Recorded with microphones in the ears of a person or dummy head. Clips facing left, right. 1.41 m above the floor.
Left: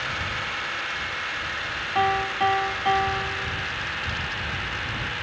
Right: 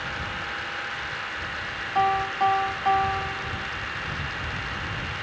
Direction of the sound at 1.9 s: 20° left (ahead or behind).